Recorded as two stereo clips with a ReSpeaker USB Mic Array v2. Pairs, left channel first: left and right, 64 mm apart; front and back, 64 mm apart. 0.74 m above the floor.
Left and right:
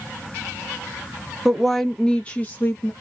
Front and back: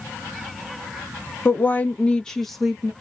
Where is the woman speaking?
5° right, 0.9 m; by 2.9 s 105° left, 0.9 m.